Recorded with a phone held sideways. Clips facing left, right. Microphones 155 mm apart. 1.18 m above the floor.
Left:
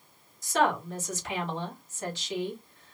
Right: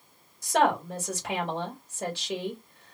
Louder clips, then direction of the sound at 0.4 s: Right 2 dB; 70° right (ahead or behind).